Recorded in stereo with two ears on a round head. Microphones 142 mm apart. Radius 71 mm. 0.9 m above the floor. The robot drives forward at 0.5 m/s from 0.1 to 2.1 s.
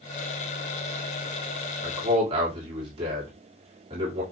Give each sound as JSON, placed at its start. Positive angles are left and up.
{"t": 1.8, "sound": "a man speaking", "side_deg": -35, "distance_m": 1.9}